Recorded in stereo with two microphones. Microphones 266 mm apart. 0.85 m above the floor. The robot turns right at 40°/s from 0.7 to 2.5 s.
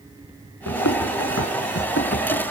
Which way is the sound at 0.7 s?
75° left (ahead or behind).